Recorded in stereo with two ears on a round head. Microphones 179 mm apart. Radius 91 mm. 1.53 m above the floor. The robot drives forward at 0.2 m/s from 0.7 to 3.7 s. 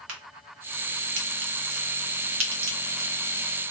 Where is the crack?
70° right (ahead or behind), 1.0 m; by 3.7 s 65° right (ahead or behind), 1.0 m.